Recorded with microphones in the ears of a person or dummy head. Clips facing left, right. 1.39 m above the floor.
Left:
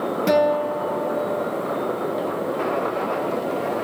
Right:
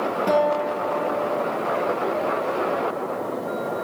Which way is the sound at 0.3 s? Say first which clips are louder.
Left 3 dB; 20° left (ahead or behind).